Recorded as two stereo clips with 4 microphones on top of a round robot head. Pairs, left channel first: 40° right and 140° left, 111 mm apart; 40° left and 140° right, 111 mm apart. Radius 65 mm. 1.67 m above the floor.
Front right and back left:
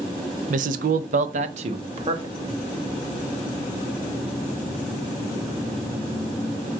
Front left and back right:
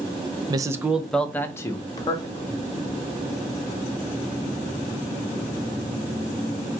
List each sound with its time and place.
0.5 s a man speaking: 160° left, 0.5 m; by 2.5 s 90° left, 1.3 m